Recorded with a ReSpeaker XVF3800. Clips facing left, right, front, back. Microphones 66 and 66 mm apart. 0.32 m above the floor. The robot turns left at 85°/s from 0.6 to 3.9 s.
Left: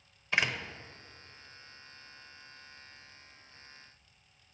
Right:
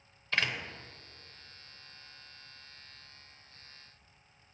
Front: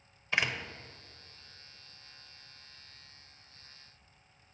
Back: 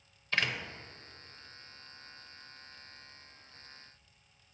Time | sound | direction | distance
0.3 | a door slam | 45° left | 0.5 m